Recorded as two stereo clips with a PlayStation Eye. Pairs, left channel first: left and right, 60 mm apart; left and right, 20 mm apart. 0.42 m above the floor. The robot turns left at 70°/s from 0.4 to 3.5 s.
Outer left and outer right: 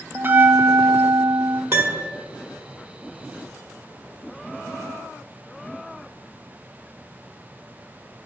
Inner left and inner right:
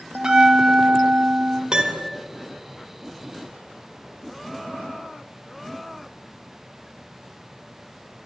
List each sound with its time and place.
0.1 s a bell: 35° right, 0.5 m; by 1.6 s 120° right, 0.5 m
1.7 s a piano: 45° right (ahead or behind), 0.8 m; by 2.1 s 70° right (ahead or behind), 0.8 m